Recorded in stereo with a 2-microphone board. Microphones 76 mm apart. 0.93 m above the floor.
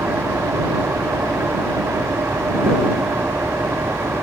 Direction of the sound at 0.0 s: 35° right (ahead or behind).